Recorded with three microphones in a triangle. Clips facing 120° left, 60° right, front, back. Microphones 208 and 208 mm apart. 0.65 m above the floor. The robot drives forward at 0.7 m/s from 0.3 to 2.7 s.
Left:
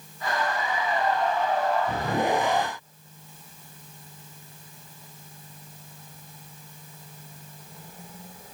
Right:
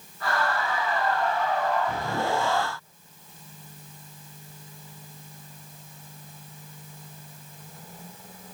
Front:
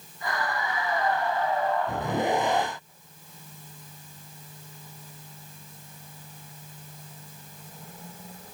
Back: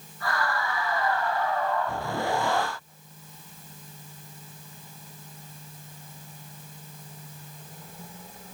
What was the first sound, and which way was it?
Only background noise.